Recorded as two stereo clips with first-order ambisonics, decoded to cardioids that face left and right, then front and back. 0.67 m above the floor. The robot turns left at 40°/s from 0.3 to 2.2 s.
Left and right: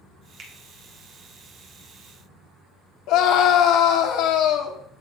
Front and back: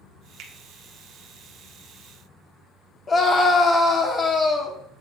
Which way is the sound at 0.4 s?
145° right.